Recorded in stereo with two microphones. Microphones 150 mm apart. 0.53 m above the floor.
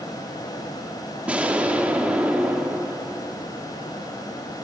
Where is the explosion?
10° right (ahead or behind), 0.6 m.